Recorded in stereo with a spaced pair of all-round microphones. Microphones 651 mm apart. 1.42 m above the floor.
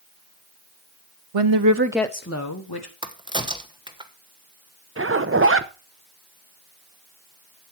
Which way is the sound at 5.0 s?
20° right (ahead or behind).